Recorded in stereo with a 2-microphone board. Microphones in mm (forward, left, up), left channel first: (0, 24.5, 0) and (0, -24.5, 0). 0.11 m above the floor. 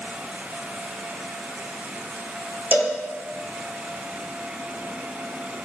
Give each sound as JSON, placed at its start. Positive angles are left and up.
{"t": 2.7, "sound": "a cowbell", "side_deg": -35, "distance_m": 1.0}